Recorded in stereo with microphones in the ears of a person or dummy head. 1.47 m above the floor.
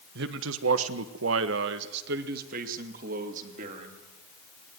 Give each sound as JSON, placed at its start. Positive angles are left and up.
{"t": 0.1, "sound": "a man speaking", "side_deg": -70, "distance_m": 1.3}